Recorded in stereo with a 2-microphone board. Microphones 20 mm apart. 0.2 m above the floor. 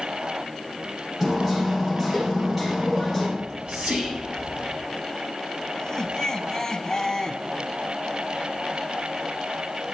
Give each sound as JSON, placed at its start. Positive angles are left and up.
{"t": 1.2, "sound": "hammering", "side_deg": -10, "distance_m": 7.0}
{"t": 3.4, "sound": "whispering", "side_deg": -70, "distance_m": 7.0}
{"t": 5.8, "sound": "laughter", "side_deg": 20, "distance_m": 1.3}